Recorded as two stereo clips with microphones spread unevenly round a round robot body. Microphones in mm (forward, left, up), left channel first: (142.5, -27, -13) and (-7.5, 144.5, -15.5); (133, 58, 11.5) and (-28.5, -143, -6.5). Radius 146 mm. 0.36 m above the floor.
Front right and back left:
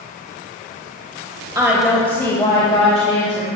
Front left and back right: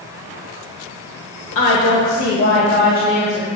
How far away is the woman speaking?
About 1.2 m.